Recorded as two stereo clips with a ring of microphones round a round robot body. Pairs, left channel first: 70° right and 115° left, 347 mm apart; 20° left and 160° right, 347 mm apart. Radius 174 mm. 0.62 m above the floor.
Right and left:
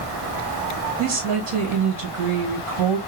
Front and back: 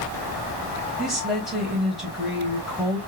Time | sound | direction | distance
1.0 | a woman speaking | 115° left | 3.5 m